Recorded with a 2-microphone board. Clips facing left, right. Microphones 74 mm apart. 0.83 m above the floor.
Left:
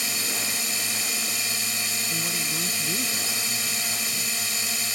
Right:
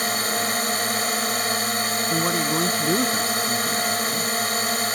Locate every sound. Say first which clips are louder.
0.0 s a drone: right 8 dB; 50° right (ahead or behind)
2.1 s a man speaking: right 12 dB; 55° right (ahead or behind)